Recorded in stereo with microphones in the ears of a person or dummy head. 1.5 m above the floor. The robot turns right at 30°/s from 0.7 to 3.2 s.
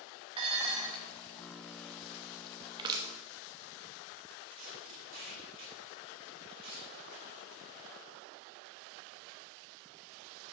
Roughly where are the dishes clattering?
Right.